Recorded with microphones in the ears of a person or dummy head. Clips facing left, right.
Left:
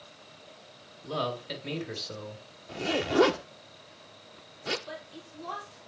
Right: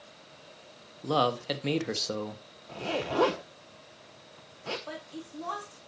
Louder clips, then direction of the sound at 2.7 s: Left 3 dB; 20° left (ahead or behind).